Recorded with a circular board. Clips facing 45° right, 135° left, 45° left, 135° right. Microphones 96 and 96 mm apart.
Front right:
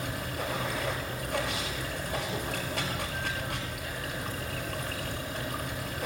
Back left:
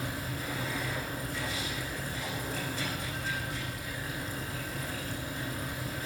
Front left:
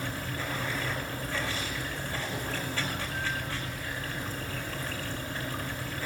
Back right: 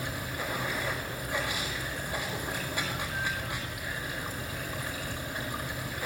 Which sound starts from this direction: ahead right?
Running water, at 0.0 s.